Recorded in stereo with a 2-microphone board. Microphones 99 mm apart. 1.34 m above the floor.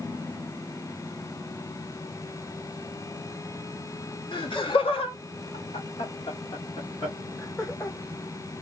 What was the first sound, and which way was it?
Laughter, 55° left (ahead or behind).